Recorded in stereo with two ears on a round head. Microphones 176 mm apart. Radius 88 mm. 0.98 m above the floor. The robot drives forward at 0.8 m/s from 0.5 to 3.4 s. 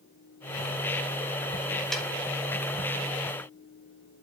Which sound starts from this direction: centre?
A snare drum, at 1.9 s.